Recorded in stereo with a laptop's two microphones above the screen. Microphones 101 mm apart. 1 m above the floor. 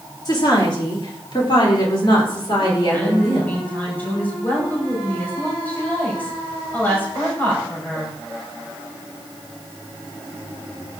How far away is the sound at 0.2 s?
About 2 m.